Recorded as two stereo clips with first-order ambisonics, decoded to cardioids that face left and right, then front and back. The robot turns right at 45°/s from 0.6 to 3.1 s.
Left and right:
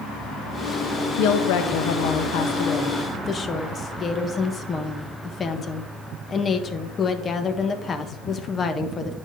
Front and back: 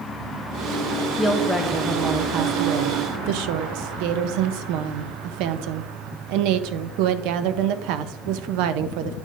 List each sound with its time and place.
1.2 s a woman speaking: 75° left, 0.7 m; by 9.2 s 160° left, 0.7 m